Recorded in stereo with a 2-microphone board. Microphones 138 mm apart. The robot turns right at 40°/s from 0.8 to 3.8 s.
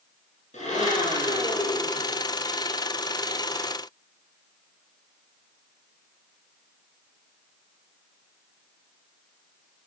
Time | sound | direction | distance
0.5 | a blender | 55° left | 8 m